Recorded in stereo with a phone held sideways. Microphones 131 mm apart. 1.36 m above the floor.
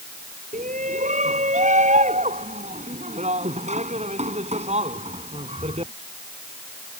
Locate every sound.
0.5 s a shout: 70° right (ahead or behind); by 5.9 s 50° right (ahead or behind)